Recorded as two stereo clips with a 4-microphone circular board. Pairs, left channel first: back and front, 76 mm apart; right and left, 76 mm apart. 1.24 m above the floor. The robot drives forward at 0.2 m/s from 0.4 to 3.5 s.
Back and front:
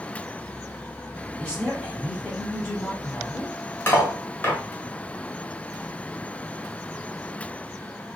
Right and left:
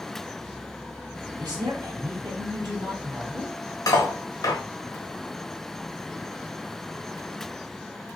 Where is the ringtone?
I don't hear a ringtone.